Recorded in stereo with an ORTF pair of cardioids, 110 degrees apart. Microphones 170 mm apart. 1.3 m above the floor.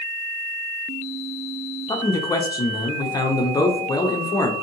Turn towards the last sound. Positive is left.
turn(degrees=25)